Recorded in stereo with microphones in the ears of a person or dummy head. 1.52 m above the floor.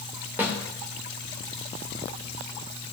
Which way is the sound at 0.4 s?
15° right (ahead or behind).